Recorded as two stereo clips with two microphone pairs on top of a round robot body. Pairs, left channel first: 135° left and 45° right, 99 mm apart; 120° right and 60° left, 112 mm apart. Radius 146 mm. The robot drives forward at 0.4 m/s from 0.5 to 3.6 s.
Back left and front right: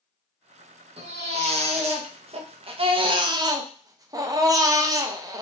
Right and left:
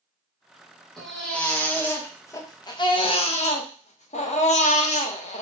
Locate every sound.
1.0 s a baby crying: 35° right, 1.2 m; by 5.4 s 95° right, 0.7 m